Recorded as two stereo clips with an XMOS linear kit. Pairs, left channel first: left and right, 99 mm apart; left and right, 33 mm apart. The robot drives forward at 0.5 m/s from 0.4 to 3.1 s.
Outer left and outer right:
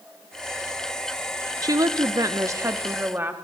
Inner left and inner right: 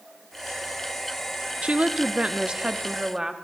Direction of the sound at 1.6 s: 35° right (ahead or behind).